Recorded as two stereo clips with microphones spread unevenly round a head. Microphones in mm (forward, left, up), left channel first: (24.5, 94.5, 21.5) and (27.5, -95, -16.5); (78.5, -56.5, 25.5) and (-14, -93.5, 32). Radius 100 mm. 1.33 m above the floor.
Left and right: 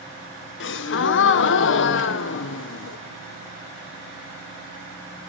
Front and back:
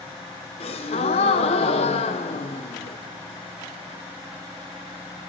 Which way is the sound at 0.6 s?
65° left.